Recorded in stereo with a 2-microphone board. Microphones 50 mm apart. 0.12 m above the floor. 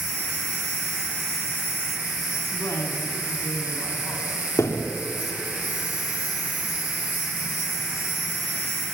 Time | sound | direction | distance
0.0 | an insect | 35° right (ahead or behind) | 4 m
2.5 | a woman speaking | 75° left (ahead or behind) | 5 m
4.6 | a thud | 85° left | 3.5 m